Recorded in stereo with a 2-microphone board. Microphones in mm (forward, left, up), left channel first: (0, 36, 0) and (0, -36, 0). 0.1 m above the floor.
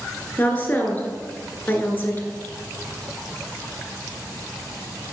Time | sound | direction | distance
0.4 | a woman speaking | 25° left (ahead or behind) | 1.2 m